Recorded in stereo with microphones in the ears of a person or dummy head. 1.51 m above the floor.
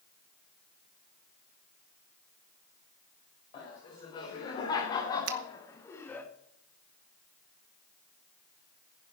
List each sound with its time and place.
3.5 s laughter: 35° left (ahead or behind), 5.5 m; by 6.3 s 10° left (ahead or behind), 1.7 m
5.3 s a finger snap: 70° right (ahead or behind), 1.1 m